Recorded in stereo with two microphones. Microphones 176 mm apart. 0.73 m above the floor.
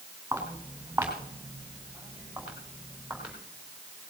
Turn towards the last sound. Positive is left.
turn(degrees=-5)  # may be behind; listen again after turning